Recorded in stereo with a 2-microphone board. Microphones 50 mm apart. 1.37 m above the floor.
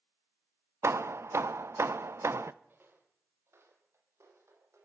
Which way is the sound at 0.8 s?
70° right (ahead or behind).